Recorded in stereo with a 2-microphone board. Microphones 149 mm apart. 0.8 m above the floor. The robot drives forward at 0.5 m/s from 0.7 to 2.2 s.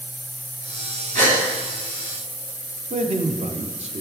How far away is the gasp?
About 2.5 m.